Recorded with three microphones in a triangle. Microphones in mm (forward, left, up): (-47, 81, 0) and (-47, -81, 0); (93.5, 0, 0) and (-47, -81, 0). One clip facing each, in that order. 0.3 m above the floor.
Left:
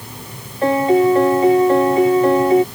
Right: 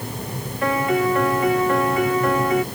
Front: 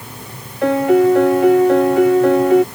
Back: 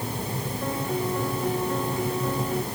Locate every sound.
0.6 s a piano: 30° left